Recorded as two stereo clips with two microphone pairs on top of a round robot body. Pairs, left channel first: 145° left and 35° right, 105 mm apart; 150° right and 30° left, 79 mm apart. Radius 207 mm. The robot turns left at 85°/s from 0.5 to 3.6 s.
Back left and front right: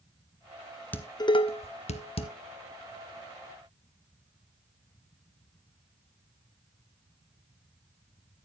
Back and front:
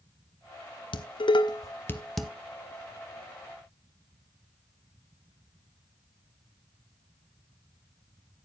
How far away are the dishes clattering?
About 1.3 m.